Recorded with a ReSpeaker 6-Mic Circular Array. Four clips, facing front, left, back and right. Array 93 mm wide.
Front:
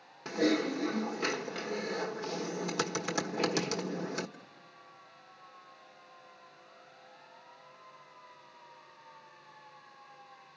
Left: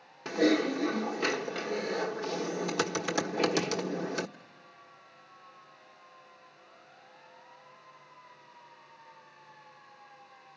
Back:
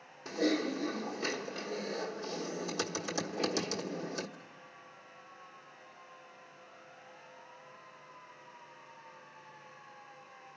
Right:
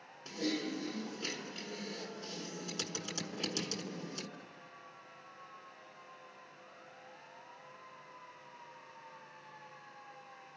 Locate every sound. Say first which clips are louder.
0.2 s typing on a keyboard: left 11 dB, front 2 dB; 60° left, 1.1 m